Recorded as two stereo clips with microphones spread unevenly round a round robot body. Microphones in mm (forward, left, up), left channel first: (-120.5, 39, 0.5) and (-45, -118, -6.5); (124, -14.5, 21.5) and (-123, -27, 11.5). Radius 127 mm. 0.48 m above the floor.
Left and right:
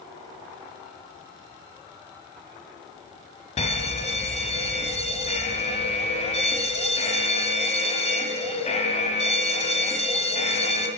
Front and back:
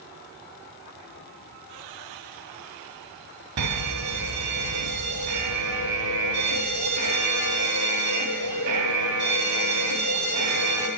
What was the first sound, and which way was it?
An alarm, 165° left.